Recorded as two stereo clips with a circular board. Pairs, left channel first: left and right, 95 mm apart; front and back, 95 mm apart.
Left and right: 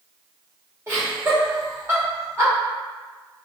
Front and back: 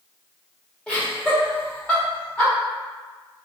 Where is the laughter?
65° right, 1.1 m.